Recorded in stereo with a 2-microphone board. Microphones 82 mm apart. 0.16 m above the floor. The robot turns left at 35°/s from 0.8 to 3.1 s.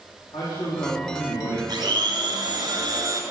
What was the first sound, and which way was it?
A man speaking, 50° left (ahead or behind).